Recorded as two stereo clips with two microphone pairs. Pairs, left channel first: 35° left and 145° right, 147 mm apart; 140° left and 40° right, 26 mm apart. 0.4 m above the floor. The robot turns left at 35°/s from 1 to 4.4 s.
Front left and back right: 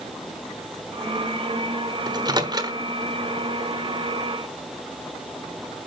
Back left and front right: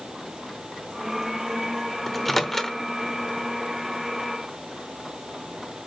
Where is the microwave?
140° right, 1.0 m; by 2.8 s 165° right, 1.0 m.